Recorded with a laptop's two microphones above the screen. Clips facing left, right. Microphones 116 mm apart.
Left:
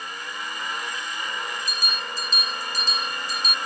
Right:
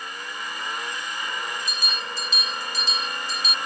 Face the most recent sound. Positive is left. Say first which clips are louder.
# even
turn(degrees=45)  # may be behind; listen again after turning